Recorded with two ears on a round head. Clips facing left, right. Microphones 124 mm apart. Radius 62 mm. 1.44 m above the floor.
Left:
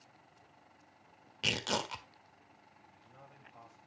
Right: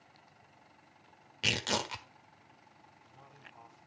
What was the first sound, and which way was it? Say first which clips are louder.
Tearing paper: right 1 dB; centre (ahead or behind).